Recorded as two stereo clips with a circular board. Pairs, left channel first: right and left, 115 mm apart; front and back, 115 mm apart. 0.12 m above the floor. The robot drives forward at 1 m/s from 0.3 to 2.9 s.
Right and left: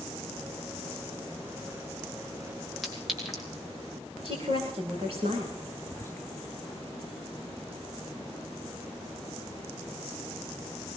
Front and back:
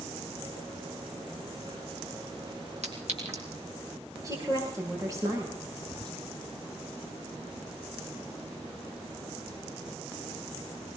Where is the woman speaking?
120° left, 7.5 m.